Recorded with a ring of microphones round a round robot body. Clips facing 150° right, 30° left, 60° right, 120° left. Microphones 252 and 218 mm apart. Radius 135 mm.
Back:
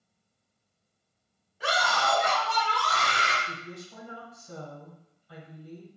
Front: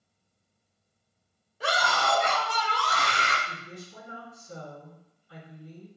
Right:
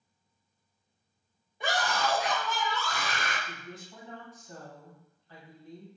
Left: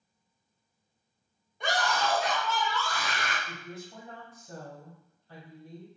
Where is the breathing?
No breathing in this recording.